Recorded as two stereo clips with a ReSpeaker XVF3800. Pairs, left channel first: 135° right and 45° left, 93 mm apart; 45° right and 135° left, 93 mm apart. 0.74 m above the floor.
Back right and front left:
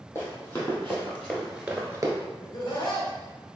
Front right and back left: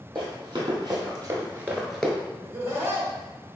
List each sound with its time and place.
0.1 s running footsteps: 170° left, 1.8 m; by 2.1 s 30° left, 0.8 m
2.4 s laughter: 165° right, 1.1 m